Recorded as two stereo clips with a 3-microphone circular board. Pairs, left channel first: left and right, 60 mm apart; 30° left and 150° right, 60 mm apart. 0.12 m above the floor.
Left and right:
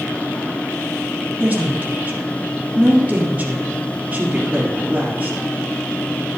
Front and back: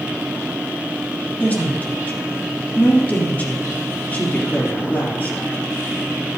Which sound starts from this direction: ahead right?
A woman speaking, at 1.4 s.